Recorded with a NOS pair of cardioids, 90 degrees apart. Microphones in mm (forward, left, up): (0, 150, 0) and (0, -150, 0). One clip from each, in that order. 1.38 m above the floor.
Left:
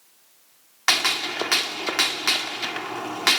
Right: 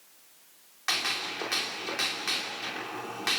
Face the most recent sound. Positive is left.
turn(degrees=70)